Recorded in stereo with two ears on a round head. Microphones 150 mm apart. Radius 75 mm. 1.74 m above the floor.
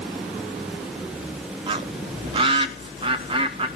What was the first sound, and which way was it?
A bird, 30° right (ahead or behind).